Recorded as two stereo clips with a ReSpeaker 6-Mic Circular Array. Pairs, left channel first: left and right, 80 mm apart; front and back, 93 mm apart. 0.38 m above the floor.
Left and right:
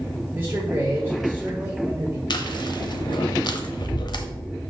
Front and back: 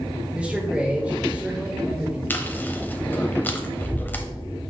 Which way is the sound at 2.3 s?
70° left.